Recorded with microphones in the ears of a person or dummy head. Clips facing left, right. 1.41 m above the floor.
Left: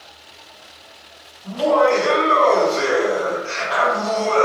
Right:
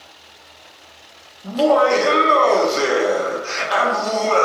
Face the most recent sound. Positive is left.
turn(degrees=-60)  # may be behind; listen again after turning